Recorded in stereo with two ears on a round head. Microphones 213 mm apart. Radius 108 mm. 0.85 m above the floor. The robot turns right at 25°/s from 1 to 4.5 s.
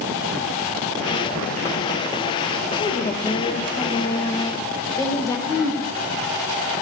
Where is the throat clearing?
25° left (ahead or behind), 6.5 m.